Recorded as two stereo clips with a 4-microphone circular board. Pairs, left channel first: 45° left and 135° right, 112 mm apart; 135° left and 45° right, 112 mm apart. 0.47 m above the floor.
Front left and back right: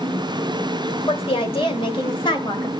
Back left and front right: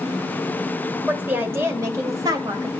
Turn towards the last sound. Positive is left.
turn(degrees=0)